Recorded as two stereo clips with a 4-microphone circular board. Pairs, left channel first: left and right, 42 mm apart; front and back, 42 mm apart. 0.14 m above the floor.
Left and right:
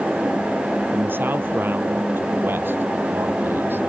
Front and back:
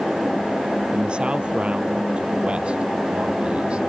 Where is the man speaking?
115° right; by 3.8 s 120° right.